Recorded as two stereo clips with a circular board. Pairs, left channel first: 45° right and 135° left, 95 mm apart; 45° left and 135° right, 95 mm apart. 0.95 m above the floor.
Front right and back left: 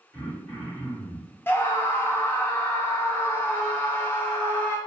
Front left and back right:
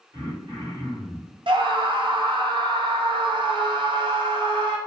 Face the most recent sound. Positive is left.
turn(degrees=-115)